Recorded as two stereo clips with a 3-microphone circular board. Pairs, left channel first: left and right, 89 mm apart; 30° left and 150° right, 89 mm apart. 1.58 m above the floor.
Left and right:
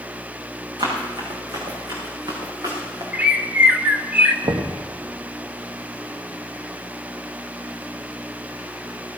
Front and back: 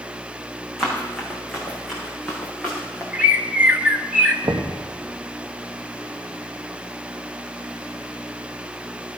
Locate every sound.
0.8 s running footsteps: 55° right, 6 m; by 3.0 s 50° right, 7 m
3.1 s a bird: 115° right, 1.2 m
4.4 s knocking: 105° right, 1.3 m